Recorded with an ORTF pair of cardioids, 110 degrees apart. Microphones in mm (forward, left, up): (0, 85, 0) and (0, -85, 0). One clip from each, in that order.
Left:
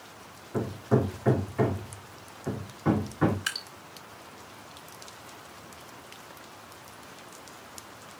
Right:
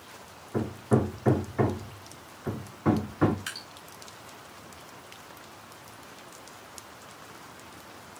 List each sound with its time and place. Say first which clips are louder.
0.5 s hammering: even; 10° right, 1.6 m
3.5 s dripping: left 5 dB; 30° left, 2.5 m